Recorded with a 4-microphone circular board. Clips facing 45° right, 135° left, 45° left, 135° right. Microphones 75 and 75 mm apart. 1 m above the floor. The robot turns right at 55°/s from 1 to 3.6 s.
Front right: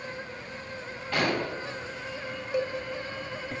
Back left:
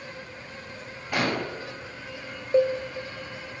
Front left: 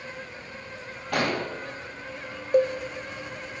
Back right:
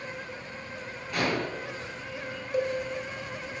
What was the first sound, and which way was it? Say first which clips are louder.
An explosion: back left 1 dB, front left 2 dB; 60° left.